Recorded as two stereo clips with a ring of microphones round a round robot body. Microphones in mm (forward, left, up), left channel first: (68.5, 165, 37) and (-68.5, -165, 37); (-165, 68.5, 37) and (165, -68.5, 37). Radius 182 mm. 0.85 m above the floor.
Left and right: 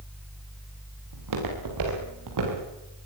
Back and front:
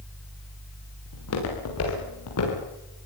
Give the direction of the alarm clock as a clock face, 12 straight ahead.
I don't hear an alarm clock.